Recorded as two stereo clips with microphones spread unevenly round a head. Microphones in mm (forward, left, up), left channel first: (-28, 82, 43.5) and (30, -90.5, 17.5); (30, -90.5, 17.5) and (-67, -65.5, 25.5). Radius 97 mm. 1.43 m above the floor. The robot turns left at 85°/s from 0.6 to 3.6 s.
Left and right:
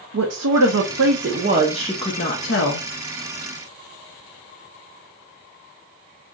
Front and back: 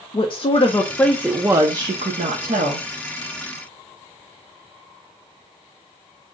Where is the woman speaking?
60° right, 0.7 m; by 2.9 s 105° left, 0.7 m.